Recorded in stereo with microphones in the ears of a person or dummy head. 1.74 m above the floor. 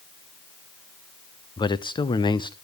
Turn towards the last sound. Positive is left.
turn(degrees=20)  # may be behind; listen again after turning